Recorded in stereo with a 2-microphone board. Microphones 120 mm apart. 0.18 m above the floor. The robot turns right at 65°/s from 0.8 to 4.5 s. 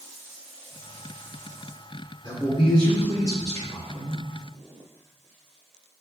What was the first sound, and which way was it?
A man speaking, 55° left.